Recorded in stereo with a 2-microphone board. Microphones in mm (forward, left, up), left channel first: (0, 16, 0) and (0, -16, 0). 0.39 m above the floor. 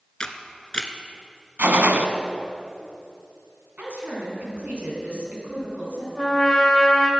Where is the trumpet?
10° left (ahead or behind), 1.9 m.